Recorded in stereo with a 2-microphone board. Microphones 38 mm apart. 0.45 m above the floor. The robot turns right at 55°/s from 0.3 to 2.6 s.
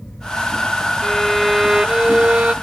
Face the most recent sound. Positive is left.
turn(degrees=-110)